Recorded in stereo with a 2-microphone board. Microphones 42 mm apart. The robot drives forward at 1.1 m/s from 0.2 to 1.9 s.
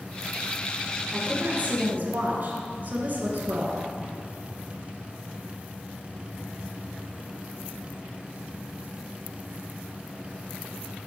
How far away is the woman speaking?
About 2.5 m.